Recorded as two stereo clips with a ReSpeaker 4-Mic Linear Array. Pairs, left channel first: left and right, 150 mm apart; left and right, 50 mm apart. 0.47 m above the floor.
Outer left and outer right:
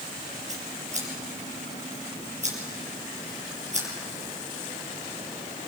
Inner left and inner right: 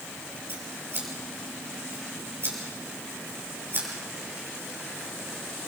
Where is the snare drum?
I don't hear a snare drum.